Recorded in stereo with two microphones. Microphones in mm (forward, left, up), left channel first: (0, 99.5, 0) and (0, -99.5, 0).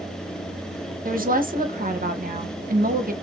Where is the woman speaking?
45° right (ahead or behind), 0.7 m.